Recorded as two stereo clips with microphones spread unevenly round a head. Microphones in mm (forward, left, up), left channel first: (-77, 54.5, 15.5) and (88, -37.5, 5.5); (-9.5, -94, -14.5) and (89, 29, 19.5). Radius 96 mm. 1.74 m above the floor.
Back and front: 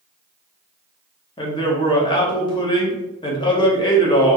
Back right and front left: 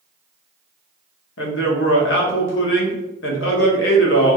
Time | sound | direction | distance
1.4 | a man speaking | 140° right | 1.1 m